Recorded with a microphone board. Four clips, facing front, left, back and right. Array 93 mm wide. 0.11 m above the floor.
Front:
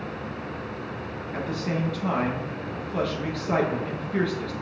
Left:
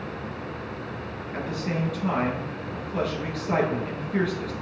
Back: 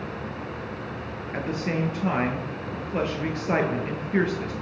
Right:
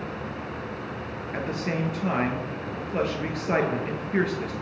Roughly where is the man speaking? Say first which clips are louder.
Right 1 dB, back 1 dB; behind right.